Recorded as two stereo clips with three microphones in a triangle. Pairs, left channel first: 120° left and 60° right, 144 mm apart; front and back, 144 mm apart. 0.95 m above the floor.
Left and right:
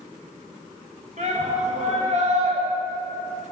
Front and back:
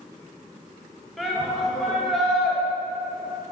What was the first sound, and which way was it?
A shout, 90° right.